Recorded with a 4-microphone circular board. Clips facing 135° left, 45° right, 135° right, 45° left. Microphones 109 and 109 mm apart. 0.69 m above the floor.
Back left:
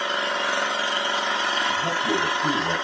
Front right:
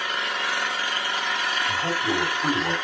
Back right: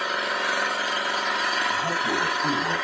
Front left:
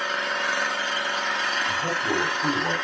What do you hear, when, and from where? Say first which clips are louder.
0.0 s an engine running: back left 3 dB, back right 1 dB; 150° left, 0.8 m
1.7 s a man speaking: even, back right 1 dB; 20° left, 4 m